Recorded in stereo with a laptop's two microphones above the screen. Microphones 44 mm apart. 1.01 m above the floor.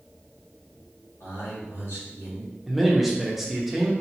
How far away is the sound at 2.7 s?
About 0.6 m.